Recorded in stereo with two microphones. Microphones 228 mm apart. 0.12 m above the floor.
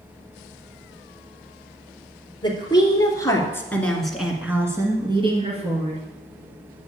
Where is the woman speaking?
20° left (ahead or behind), 2.5 m; by 6.0 s 30° right (ahead or behind), 2 m.